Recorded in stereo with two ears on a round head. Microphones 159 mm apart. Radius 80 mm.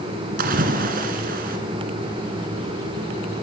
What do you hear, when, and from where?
0.4 s a splash: 55° right (ahead or behind), 1.8 m